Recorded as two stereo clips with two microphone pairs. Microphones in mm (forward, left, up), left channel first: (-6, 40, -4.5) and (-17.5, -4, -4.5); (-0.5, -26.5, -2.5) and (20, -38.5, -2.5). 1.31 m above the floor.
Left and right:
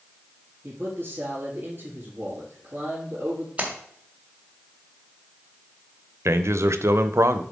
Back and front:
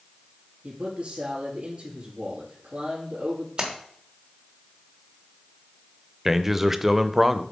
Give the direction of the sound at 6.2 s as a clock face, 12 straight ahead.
4 o'clock.